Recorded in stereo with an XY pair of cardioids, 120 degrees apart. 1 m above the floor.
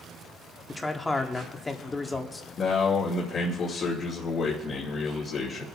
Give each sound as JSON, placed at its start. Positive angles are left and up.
{"t": 0.7, "sound": "a man speaking", "azimuth_deg": 20, "distance_m": 1.7}
{"t": 2.6, "sound": "a man speaking", "azimuth_deg": 45, "distance_m": 2.5}